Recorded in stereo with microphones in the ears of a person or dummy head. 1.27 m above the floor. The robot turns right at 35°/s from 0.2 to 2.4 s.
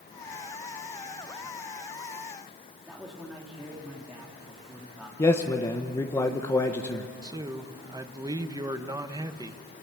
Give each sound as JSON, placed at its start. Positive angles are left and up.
{"t": 2.9, "sound": "a man speaking", "side_deg": -5, "distance_m": 3.5}
{"t": 5.2, "sound": "a man speaking", "side_deg": 15, "distance_m": 1.3}
{"t": 7.2, "sound": "a man speaking", "side_deg": -20, "distance_m": 1.0}